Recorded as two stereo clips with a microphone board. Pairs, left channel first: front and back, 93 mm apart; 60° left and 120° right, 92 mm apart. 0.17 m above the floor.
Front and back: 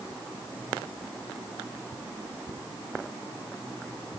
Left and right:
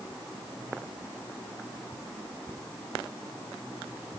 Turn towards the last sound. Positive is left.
No sound to turn to.